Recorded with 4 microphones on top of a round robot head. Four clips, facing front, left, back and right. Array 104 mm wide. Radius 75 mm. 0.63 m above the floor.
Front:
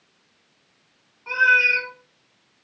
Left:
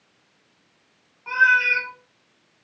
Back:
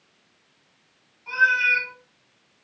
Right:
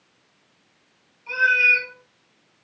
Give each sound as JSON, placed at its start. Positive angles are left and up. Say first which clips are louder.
{"t": 1.3, "sound": "a cat meowing", "louder": "left 2 dB, front 2 dB", "azimuth_deg": 60, "distance_m": 1.6}